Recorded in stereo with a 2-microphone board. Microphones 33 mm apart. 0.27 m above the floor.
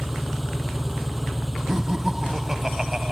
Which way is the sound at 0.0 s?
5° right (ahead or behind).